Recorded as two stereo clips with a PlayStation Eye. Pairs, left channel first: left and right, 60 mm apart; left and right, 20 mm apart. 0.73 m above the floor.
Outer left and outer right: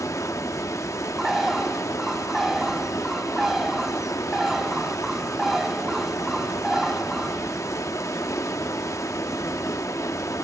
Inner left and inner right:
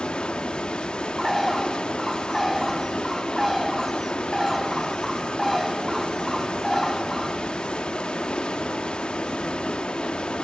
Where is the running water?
60° left (ahead or behind), 1.0 m.